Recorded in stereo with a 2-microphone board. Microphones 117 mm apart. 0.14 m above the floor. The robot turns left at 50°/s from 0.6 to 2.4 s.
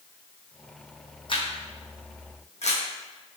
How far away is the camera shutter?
About 1.0 m.